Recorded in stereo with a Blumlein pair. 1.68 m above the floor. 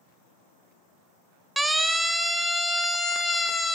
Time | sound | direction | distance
1.6 | a siren | 5° right | 2.5 m